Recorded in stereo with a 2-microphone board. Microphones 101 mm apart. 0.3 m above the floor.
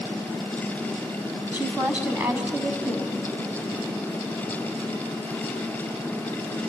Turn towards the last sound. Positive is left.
turn(degrees=-20)  # may be behind; listen again after turning